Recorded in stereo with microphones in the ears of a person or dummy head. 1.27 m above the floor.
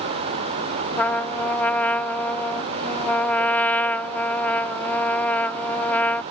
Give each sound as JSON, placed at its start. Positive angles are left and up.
{"t": 1.0, "sound": "a trumpet", "side_deg": 10}